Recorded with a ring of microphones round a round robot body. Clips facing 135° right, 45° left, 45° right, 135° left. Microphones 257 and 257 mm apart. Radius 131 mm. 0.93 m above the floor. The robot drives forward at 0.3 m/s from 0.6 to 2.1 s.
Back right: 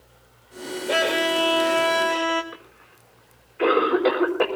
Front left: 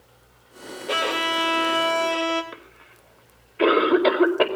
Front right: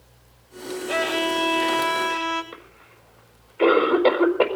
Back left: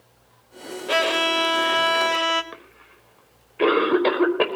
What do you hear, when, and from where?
0.9 s a violin: 120° left, 2 m; by 2.4 s 125° left, 2.5 m
2.5 s a cough: 80° left, 5 m